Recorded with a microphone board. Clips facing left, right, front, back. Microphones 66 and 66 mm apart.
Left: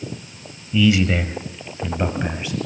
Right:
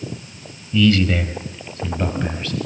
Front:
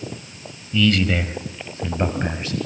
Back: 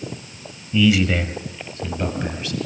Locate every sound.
0.7 s a man speaking: 140° left, 1.2 m; by 2.6 s 25° left, 1.5 m